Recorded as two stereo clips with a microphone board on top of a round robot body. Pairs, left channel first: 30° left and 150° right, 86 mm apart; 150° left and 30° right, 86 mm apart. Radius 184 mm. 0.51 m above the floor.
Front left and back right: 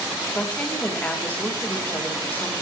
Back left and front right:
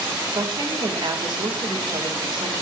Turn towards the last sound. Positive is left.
turn(degrees=-35)